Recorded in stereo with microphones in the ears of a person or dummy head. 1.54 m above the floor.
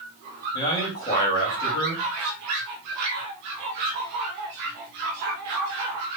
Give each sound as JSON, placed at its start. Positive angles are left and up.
{"t": 0.5, "sound": "a man speaking", "side_deg": 30, "distance_m": 2.0}